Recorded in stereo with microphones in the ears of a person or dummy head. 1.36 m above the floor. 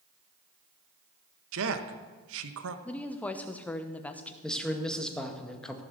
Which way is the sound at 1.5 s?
80° right.